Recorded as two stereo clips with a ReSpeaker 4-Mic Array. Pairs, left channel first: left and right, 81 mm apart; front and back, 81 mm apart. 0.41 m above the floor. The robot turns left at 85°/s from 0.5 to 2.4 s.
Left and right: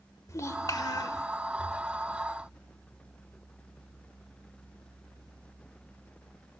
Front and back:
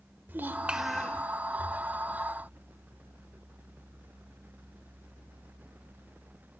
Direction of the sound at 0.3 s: 120° left.